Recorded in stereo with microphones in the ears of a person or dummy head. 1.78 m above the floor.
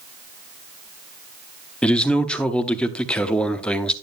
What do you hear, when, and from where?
1.8 s a man speaking: 5° left (ahead or behind), 0.6 m